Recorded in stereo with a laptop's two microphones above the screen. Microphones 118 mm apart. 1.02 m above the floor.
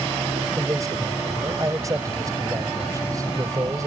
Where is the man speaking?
30° right (ahead or behind).